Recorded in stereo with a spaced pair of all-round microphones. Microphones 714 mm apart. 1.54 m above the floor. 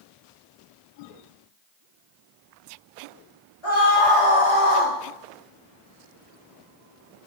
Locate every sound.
3.6 s a scream: 40° left (ahead or behind), 5 m; by 4.9 s 50° left (ahead or behind), 4.5 m